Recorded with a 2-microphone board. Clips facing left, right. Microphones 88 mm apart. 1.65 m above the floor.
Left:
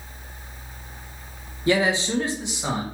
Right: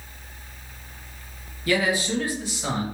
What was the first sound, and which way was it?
A man speaking, 25° left (ahead or behind).